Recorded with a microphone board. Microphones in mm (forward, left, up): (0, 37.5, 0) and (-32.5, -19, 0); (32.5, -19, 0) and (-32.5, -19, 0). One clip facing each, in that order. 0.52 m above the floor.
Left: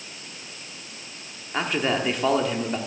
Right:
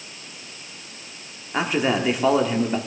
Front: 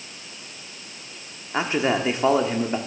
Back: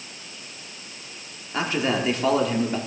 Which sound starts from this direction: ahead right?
A man speaking, at 1.5 s.